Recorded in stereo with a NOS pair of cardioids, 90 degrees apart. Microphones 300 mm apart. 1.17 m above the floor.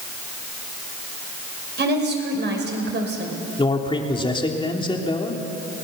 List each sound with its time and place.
1.8 s a woman speaking: 35° right, 5.5 m
3.6 s a man speaking: 15° left, 3 m